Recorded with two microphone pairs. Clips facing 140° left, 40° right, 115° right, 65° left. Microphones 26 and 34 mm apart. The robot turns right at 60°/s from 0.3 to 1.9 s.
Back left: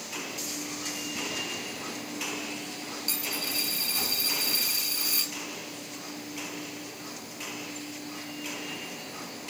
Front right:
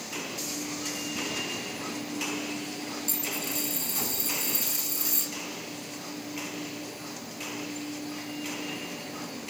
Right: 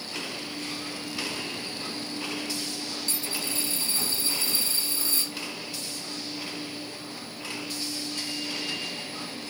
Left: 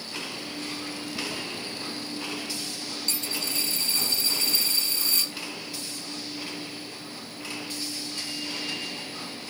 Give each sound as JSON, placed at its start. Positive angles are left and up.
{"t": 3.1, "sound": "a dropped coin", "azimuth_deg": 95, "distance_m": 2.0}